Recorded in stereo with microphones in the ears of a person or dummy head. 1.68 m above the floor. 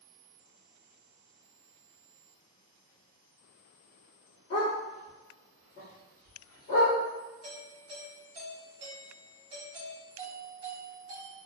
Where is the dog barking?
40° left (ahead or behind), 1.9 m.